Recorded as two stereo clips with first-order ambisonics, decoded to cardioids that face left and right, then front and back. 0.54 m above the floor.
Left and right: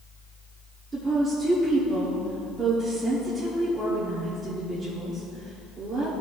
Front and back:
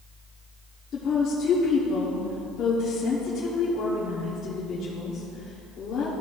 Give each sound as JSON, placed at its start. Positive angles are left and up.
{"t": 0.9, "sound": "a woman speaking", "azimuth_deg": -25, "distance_m": 1.1}